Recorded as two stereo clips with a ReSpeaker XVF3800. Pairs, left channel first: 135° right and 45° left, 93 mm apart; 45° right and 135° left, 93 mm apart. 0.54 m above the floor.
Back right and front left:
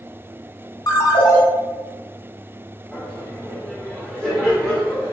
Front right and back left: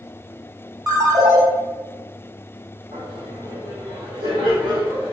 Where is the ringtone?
Straight behind, 1.0 m.